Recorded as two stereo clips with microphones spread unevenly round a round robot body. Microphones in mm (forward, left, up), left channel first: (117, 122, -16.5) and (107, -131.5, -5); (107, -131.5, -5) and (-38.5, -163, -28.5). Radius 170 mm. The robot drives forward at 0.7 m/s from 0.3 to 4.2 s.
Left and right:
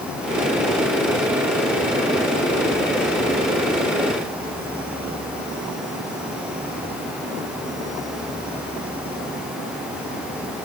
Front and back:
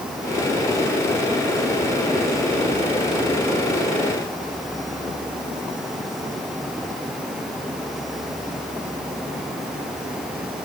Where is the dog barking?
I don't hear a dog barking.